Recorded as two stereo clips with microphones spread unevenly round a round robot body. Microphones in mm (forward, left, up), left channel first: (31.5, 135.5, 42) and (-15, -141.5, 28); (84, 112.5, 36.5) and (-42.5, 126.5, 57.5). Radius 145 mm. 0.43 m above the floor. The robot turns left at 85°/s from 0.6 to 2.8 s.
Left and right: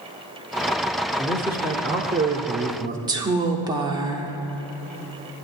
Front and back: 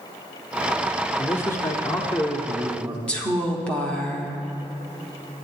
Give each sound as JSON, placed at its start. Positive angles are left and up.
{"t": 1.2, "sound": "a man speaking", "azimuth_deg": 40, "distance_m": 0.8}
{"t": 3.1, "sound": "a woman speaking", "azimuth_deg": -55, "distance_m": 1.0}